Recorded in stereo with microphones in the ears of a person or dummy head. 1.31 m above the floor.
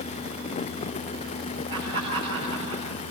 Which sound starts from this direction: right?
Laughter, at 1.7 s.